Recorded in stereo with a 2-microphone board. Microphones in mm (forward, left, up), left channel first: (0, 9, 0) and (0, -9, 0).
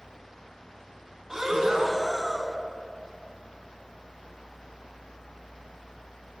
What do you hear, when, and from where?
1.3 s breathing: 35° right (ahead or behind), 0.8 m